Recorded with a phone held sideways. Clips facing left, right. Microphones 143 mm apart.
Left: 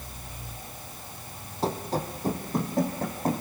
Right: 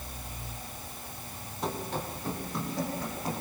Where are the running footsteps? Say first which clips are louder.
Left 5 dB; 30° left (ahead or behind), 3 m; by 3.4 s 55° left (ahead or behind), 5 m.